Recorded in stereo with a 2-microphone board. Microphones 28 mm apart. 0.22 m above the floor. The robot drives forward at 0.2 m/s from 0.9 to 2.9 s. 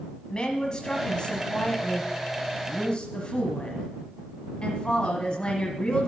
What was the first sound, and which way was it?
A woman speaking, 35° left (ahead or behind).